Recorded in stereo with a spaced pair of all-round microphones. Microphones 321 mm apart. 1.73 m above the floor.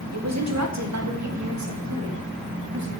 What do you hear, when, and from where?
0.1 s a woman speaking: 55° right (ahead or behind), 1.4 m; by 2.9 s 60° right (ahead or behind), 3 m